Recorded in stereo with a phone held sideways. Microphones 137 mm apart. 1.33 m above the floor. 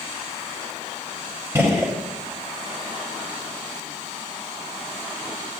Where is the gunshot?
20° right (ahead or behind), 1.1 m.